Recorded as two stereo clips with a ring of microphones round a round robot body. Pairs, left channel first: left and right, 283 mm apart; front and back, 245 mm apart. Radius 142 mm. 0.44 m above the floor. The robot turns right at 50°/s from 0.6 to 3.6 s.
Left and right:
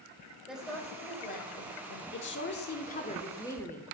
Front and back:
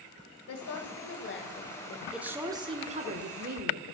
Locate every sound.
0.5 s a woman speaking: straight ahead, 1.9 m; by 2.0 s 70° left, 1.9 m
2.1 s a woman speaking: 95° left, 1.1 m; by 3.9 s 170° left, 1.1 m